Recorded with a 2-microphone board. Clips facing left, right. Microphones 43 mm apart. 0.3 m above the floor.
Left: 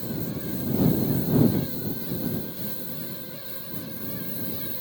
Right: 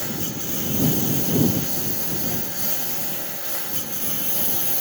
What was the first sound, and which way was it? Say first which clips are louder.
A lawn mower: right 1 dB; 80° right.